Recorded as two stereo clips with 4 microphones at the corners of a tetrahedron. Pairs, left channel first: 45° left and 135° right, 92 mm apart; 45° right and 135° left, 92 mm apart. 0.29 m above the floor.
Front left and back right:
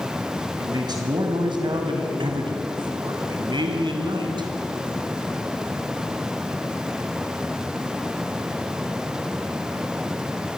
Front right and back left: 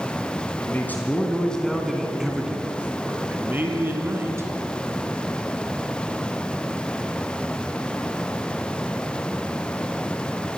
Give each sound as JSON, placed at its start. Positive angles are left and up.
{"t": 0.6, "sound": "a man speaking", "azimuth_deg": -105, "distance_m": 2.5}